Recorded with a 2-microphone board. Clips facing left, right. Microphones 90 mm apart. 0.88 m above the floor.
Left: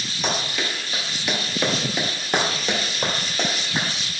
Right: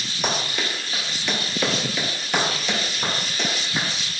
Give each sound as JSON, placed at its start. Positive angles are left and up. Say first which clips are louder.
{"t": 0.2, "sound": "running footsteps", "louder": "even", "side_deg": -15, "distance_m": 1.2}